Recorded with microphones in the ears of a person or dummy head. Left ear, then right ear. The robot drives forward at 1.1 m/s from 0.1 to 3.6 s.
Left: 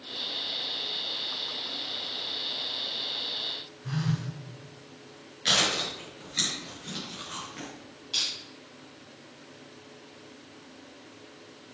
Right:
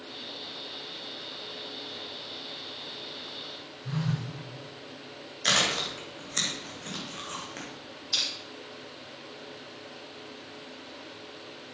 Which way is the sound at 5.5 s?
45° right (ahead or behind).